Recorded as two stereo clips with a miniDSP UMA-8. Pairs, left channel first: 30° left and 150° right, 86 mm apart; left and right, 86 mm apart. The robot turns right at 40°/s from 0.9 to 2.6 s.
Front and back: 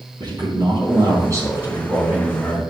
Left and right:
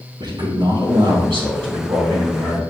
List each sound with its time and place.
0.2 s a man speaking: 115° right, 3.5 m; by 2.6 s 50° right, 3.5 m